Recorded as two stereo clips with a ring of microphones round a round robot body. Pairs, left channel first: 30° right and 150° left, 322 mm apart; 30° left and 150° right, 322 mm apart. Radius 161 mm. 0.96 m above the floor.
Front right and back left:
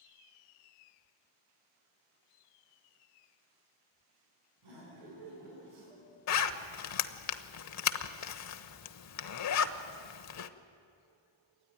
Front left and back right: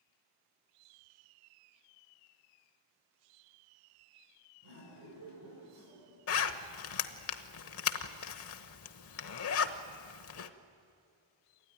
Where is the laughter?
160° left, 10 m.